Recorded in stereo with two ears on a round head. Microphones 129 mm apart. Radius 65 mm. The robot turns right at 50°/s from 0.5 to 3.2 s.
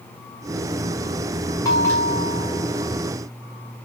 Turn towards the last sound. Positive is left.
turn(degrees=-135)